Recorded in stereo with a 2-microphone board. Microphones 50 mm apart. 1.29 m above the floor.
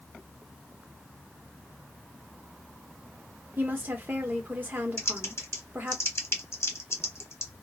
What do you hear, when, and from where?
3.6 s a woman speaking: 40° right (ahead or behind), 0.9 m
5.0 s typing on a keyboard: 60° left (ahead or behind), 0.9 m